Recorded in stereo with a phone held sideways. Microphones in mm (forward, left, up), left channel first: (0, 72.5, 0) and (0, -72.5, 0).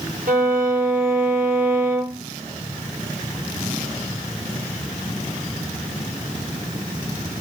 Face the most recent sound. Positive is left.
turn(degrees=-75)  # may be behind; listen again after turning